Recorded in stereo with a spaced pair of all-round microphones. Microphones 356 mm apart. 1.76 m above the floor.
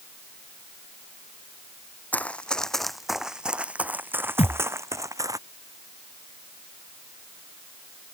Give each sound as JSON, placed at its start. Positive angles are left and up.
{"t": 2.1, "sound": "running footsteps", "side_deg": 5}
{"t": 4.4, "sound": "a thud", "side_deg": 15}